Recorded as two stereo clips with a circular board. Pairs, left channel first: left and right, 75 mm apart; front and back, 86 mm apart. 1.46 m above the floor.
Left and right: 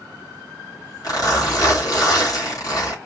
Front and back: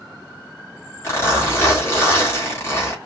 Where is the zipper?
55° left, 3.5 m.